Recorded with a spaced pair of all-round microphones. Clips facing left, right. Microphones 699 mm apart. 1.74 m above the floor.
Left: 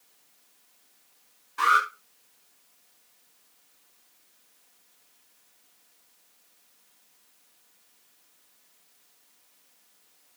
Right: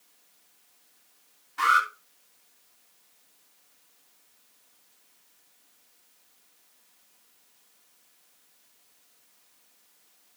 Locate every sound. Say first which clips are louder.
1.6 s an alarm: left 1 dB; 15° right (ahead or behind), 7.5 m